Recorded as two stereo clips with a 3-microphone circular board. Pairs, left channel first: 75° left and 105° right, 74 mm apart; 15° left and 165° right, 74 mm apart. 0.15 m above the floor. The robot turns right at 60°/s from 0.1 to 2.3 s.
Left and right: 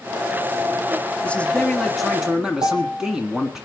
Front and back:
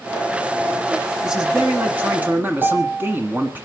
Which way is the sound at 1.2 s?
120° left.